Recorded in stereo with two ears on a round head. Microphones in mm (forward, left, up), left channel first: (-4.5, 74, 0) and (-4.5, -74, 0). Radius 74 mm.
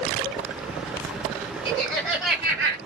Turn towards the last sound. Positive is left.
turn(degrees=-20)  # may be behind; listen again after turning